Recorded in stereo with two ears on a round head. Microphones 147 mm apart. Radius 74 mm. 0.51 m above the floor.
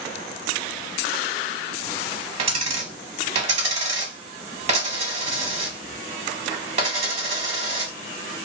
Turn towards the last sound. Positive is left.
turn(degrees=-40)  # may be behind; listen again after turning